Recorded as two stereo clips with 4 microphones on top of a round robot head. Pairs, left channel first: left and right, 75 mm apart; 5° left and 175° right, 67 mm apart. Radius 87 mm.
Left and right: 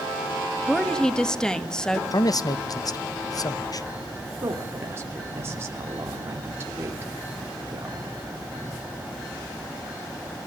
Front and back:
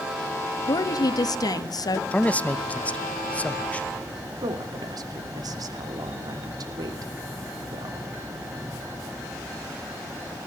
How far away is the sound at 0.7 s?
About 2.0 m.